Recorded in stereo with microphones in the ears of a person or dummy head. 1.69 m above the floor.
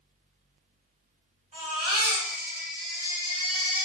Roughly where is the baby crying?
Right.